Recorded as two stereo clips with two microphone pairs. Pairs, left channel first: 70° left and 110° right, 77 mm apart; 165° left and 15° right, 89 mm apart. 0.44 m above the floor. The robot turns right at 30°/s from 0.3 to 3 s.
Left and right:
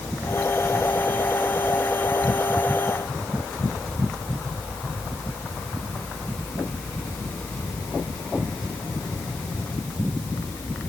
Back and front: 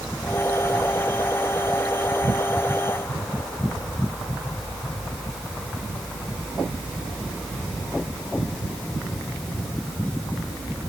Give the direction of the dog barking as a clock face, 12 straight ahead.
I don't hear a dog barking.